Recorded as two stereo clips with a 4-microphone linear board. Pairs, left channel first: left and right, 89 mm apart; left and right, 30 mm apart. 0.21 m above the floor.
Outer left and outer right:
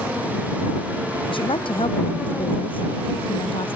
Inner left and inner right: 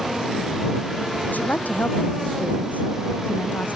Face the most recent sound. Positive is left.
turn(degrees=80)